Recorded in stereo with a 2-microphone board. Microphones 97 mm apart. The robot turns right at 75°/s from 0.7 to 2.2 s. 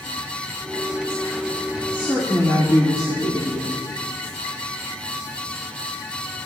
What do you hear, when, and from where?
1.9 s a woman speaking: 60° left (ahead or behind), 1.9 m; by 3.8 s 40° left (ahead or behind), 1.9 m